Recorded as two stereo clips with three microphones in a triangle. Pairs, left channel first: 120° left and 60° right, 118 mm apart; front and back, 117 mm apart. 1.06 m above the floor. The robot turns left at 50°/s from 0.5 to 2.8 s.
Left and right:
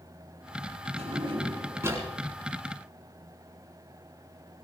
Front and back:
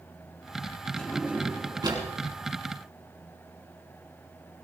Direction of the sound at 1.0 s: 80° right.